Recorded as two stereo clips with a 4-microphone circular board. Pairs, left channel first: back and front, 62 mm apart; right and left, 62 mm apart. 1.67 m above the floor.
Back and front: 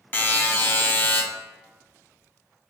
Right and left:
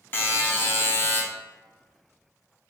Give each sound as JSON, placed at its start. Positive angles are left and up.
{"t": 0.1, "sound": "a buzzer", "azimuth_deg": -135, "distance_m": 0.5}